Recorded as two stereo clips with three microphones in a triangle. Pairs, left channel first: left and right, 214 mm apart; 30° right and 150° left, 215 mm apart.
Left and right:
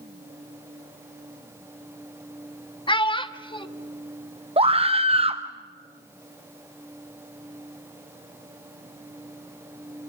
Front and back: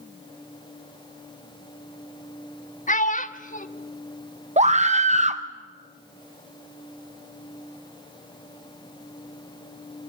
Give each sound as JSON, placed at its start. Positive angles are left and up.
{"t": 2.9, "sound": "a child speaking", "azimuth_deg": 20, "distance_m": 1.5}
{"t": 4.6, "sound": "a scream", "azimuth_deg": -150, "distance_m": 0.8}